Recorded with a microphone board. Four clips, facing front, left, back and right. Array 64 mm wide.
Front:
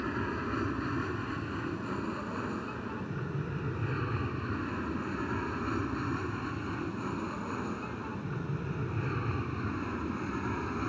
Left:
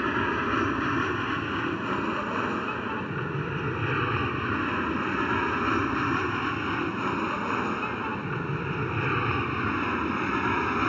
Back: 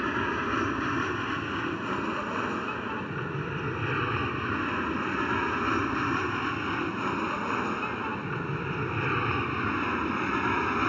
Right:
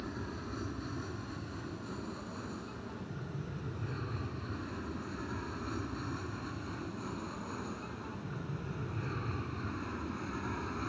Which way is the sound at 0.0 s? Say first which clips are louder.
Left 16 dB, back 6 dB; 120° left.